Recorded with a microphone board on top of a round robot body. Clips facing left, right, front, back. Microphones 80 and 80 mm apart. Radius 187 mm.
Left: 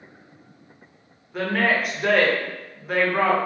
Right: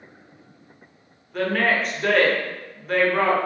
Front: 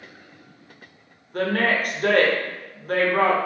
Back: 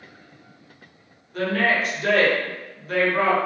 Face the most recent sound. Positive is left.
turn(degrees=10)